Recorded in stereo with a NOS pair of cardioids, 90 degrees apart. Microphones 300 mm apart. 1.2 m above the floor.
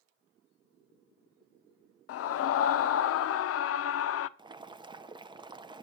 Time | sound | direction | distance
2.1 | a scream | 55° left | 0.6 m
4.4 | boiling | 15° right | 0.5 m